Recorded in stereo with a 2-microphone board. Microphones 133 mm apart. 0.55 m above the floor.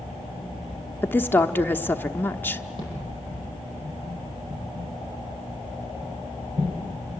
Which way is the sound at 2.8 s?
40° right (ahead or behind).